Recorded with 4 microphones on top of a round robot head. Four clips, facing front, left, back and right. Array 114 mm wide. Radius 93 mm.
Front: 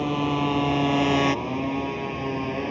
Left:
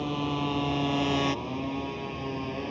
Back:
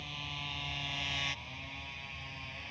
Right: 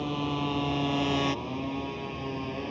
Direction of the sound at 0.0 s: Straight ahead.